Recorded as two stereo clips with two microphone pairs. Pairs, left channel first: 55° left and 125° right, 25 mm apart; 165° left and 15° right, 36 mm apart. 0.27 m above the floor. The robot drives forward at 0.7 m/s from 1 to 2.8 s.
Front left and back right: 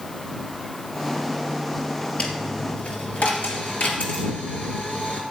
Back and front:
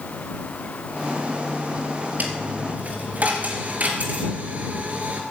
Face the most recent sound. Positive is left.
turn(degrees=30)